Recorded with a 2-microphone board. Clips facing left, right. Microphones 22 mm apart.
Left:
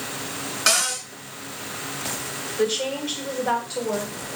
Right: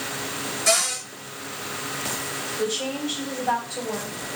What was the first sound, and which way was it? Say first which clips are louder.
A cupboard door: left 1 dB; 65° left (ahead or behind).